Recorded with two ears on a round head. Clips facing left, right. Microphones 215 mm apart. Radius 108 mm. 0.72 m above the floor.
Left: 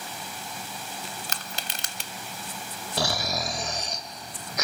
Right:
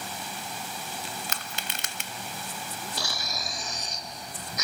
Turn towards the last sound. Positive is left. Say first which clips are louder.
# left 13 dB
turn(degrees=55)  # may be behind; listen again after turning